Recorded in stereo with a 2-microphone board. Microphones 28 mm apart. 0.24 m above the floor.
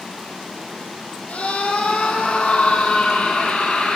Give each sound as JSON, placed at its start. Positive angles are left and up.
{"t": 1.3, "sound": "a scream", "side_deg": 70, "distance_m": 5.0}